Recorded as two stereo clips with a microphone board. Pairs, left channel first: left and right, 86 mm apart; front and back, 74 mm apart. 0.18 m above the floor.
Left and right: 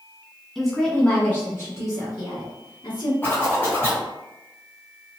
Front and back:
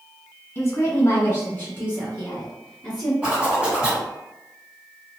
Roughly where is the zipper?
Behind left.